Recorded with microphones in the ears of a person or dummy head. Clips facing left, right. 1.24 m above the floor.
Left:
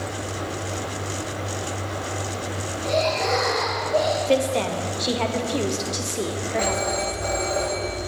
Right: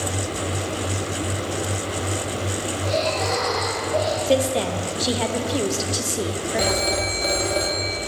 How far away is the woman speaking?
About 0.5 m.